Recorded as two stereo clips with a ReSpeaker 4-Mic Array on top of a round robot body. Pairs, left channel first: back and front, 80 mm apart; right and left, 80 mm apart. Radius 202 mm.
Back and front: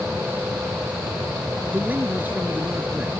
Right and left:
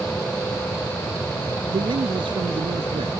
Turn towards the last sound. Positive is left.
turn(degrees=70)